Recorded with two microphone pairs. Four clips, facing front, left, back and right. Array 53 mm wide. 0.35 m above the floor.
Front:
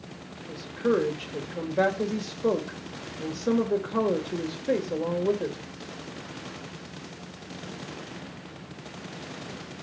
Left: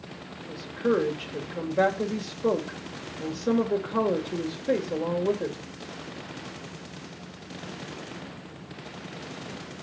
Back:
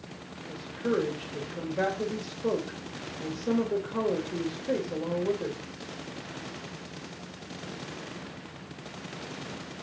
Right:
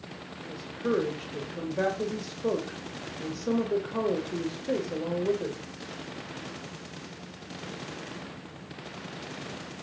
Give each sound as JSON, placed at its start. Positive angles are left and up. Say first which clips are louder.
{"t": 0.5, "sound": "a woman speaking", "louder": "left 4 dB, front 4 dB", "azimuth_deg": 35, "distance_m": 1.3}